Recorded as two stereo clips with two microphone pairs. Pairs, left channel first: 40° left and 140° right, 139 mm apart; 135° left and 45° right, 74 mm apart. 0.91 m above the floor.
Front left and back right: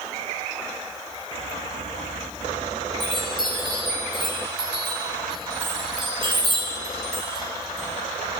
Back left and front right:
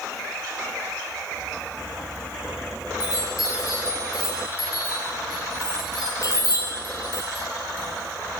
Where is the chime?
170° left, 5 m.